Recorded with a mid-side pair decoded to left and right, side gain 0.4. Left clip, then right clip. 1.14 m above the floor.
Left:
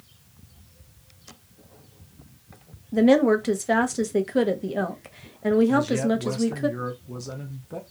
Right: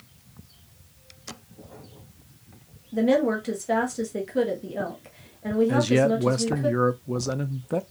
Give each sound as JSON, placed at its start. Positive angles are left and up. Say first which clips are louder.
{"t": 2.9, "sound": "a woman speaking", "louder": "left 4 dB", "azimuth_deg": 50, "distance_m": 0.9}
{"t": 5.7, "sound": "a man speaking", "louder": "right 2 dB", "azimuth_deg": -60, "distance_m": 0.5}